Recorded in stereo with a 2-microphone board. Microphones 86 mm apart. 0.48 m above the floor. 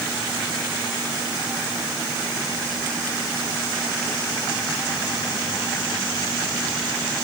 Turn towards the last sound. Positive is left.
No sound to turn to.